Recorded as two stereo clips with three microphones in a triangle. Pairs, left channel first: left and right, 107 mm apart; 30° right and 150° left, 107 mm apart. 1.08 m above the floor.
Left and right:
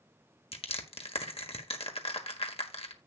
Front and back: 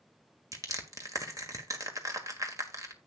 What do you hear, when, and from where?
0.5 s crushing: 95° left, 1.5 m